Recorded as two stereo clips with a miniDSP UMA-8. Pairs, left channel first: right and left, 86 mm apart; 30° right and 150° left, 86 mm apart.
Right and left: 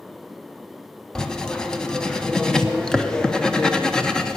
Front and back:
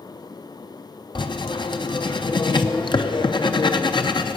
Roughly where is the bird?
I don't hear a bird.